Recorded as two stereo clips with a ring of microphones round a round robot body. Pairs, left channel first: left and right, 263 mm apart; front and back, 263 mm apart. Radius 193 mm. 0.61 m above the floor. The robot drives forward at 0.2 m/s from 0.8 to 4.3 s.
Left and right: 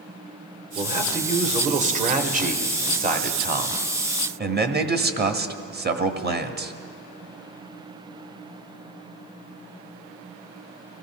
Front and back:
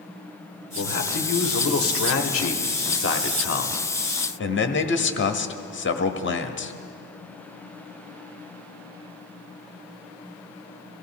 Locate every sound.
0.8 s a man speaking: 25° right, 1.8 m; by 6.7 s 40° right, 1.3 m